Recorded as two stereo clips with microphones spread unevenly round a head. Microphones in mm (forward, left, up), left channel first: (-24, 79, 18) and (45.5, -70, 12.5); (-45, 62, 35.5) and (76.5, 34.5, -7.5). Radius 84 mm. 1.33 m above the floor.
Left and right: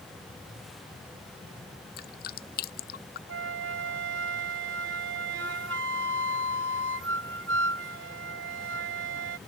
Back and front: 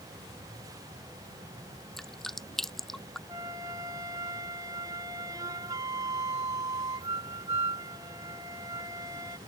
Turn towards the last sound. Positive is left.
turn(degrees=-90)